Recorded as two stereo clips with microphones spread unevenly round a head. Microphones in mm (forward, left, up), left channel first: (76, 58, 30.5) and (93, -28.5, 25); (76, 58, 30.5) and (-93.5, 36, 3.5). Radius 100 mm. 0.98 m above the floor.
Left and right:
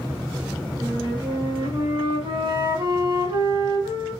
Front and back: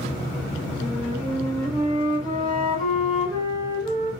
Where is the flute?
65° right, 4.5 m.